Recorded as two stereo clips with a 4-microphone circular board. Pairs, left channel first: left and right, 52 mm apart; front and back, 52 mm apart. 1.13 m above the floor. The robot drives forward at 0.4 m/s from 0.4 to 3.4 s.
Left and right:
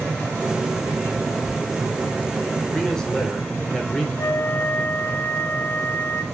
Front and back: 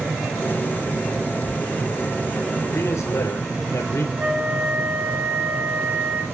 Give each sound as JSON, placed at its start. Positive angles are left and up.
{"t": 2.7, "sound": "a man speaking", "azimuth_deg": 10, "distance_m": 4.0}
{"t": 4.2, "sound": "a flute", "azimuth_deg": 120, "distance_m": 2.0}